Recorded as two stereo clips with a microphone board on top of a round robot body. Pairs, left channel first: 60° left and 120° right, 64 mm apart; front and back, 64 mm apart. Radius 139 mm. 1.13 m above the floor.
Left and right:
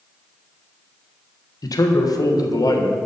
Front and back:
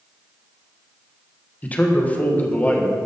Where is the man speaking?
65° left, 1.5 m.